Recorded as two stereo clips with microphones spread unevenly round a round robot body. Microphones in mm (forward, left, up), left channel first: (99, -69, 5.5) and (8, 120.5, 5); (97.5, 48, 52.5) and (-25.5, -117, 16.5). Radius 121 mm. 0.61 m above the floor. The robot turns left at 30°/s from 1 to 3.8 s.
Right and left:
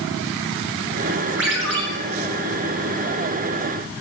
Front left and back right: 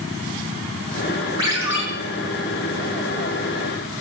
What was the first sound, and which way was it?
A ringtone, 160° left.